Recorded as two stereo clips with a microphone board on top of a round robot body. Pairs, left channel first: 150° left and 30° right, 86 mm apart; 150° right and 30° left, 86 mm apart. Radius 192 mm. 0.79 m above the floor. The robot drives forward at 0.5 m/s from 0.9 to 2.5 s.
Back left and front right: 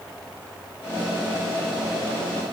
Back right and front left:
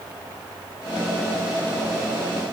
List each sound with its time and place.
Only background noise.